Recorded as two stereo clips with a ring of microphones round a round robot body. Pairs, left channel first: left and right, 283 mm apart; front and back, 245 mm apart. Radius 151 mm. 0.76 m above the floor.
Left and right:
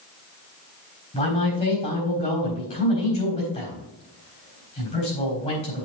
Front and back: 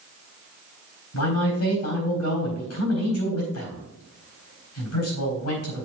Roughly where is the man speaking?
Ahead.